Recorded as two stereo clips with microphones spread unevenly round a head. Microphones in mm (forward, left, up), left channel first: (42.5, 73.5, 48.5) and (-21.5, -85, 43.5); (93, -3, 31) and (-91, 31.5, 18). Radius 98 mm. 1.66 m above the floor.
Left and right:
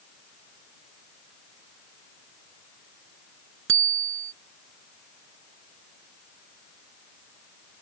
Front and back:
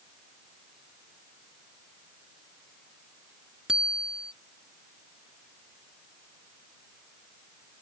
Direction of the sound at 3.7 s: 105° right.